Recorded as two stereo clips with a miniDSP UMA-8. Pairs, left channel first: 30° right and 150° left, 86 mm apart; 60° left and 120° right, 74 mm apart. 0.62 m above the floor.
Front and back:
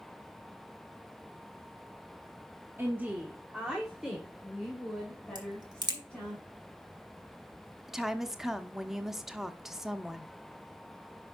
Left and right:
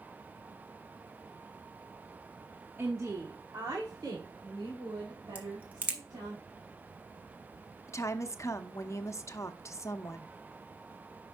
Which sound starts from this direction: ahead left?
A woman speaking, at 7.9 s.